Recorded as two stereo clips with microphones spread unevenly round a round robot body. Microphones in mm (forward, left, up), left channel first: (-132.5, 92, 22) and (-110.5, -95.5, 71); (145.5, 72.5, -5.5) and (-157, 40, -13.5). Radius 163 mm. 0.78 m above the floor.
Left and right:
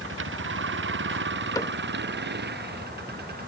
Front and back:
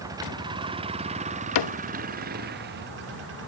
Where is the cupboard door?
10° left.